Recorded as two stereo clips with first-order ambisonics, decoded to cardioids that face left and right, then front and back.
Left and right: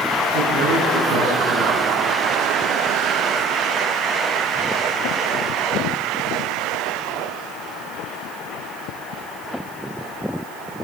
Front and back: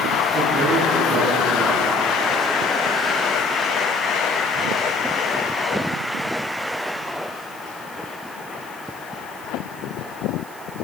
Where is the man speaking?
115° right, 7 m.